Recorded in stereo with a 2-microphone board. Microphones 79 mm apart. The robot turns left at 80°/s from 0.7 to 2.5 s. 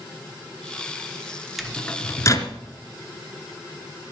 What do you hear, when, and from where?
1.6 s a microwave: centre (ahead or behind), 1.3 m; by 2.5 s 45° left (ahead or behind), 1.3 m